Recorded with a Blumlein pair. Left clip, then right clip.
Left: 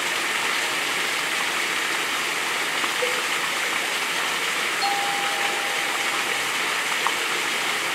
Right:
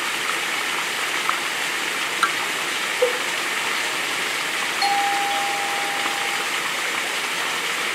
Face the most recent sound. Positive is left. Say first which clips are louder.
# right 6 dB
turn(degrees=-20)